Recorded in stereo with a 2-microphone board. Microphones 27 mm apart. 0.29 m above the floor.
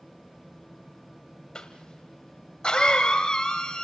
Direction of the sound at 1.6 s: 30° left (ahead or behind).